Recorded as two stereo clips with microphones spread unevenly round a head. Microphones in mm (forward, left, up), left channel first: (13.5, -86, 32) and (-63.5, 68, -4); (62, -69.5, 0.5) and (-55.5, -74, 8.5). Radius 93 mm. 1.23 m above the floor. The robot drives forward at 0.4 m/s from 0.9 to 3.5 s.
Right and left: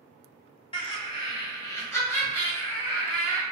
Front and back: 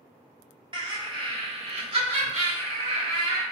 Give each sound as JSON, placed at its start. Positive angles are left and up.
{"t": 0.7, "sound": "laughter", "azimuth_deg": -125, "distance_m": 1.1}